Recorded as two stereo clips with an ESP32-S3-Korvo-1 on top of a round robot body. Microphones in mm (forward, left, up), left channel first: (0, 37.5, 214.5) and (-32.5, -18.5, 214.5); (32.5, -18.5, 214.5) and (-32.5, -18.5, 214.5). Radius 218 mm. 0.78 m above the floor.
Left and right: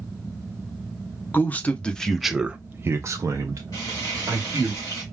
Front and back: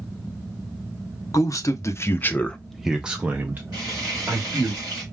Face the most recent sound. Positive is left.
turn(degrees=20)